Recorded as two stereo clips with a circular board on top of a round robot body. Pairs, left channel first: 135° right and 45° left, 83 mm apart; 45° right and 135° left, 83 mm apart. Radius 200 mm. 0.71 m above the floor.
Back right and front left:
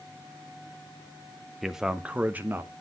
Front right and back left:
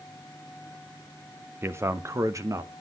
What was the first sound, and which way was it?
A man speaking, 130° left.